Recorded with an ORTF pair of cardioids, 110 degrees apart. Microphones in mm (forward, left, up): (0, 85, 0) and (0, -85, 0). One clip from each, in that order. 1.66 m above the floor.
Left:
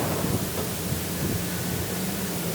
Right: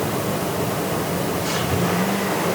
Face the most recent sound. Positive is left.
No sound to turn to.